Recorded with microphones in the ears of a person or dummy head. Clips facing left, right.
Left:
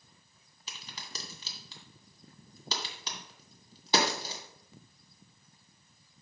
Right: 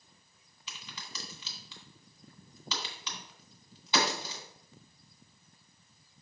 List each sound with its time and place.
0.7 s a crack: 45° left (ahead or behind), 2 m